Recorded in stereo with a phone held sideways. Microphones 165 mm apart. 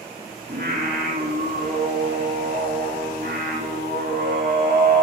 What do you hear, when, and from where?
0.5 s singing: 80° right, 3 m